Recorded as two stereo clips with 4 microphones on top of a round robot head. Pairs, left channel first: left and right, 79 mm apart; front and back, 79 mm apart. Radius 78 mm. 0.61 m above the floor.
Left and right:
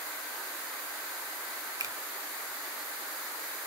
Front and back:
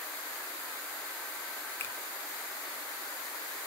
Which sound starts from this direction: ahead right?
A finger snap, at 1.8 s.